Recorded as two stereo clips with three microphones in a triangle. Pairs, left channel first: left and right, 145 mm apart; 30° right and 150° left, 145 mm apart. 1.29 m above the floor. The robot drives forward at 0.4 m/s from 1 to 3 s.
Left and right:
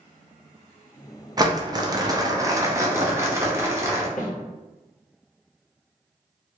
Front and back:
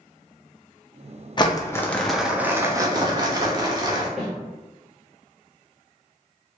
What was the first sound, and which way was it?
Crumpling, 50° right.